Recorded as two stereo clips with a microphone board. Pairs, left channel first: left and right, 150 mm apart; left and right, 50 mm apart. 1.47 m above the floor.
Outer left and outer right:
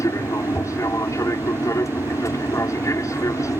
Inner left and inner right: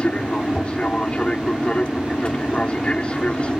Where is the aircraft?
20° left (ahead or behind).